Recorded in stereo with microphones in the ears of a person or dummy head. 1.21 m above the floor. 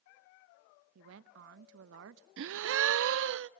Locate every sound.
0.9 s a woman speaking: 80° right, 0.8 m
2.4 s a gasp: 70° right (ahead or behind), 0.5 m